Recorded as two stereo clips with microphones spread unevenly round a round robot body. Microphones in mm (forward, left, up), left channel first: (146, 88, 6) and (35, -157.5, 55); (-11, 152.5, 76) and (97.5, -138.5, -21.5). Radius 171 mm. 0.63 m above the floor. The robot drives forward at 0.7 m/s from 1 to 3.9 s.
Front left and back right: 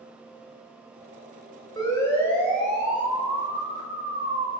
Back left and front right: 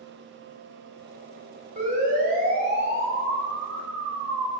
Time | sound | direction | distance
1.8 | a siren | 10° right | 5 m